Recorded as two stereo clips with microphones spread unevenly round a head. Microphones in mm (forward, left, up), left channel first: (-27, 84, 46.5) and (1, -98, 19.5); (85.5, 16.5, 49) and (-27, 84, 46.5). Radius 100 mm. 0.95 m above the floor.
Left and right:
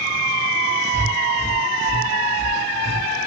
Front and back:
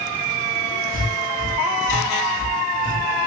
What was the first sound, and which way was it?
Breathing, 160° left.